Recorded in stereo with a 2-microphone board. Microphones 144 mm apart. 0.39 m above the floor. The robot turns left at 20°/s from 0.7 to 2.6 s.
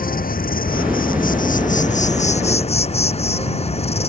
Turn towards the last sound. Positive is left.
turn(degrees=45)